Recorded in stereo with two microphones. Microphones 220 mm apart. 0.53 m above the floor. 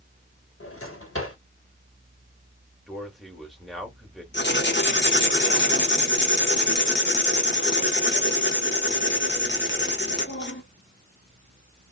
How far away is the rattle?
No rattle in this recording.